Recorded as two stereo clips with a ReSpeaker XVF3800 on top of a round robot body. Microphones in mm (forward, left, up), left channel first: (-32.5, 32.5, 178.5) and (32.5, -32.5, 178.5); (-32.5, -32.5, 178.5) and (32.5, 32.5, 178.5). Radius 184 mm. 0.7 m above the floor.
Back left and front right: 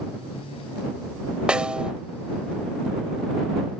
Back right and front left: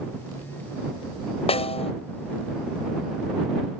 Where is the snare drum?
125° right.